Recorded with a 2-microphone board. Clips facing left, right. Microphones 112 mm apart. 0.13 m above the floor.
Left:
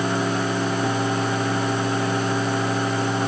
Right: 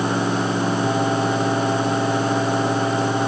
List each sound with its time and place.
Only background noise.